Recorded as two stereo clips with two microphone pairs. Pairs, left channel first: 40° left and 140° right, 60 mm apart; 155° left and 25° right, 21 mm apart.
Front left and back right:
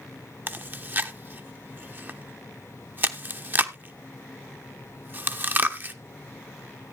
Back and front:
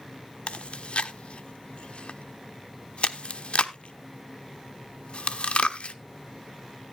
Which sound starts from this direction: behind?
Chewing, at 0.5 s.